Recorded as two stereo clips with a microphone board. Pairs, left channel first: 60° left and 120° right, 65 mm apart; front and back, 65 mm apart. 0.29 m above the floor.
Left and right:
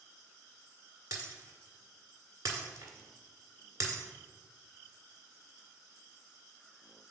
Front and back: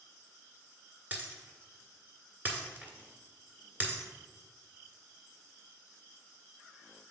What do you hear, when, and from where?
1.1 s breaking glass: 115° right, 1.4 m